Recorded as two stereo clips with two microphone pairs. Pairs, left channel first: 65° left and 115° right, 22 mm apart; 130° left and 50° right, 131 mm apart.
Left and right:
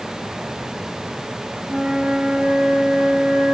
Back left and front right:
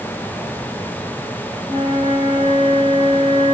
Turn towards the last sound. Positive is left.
turn(degrees=-95)